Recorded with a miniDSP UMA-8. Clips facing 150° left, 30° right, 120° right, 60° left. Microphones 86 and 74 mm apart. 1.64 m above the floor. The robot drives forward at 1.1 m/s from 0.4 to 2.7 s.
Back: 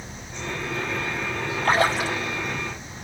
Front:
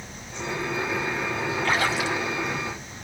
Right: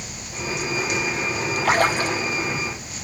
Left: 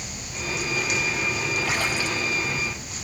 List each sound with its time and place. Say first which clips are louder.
1.6 s a splash: back 5 dB, right 7 dB; 160° right, 2.5 m; by 2.2 s 165° right, 3 m